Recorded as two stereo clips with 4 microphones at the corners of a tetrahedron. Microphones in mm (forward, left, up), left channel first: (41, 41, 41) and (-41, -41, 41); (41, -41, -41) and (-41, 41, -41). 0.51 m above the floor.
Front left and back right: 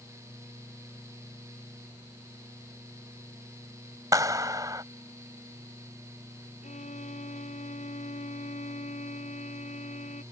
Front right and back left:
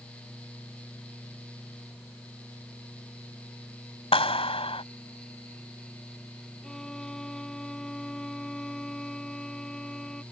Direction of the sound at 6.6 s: 40° left.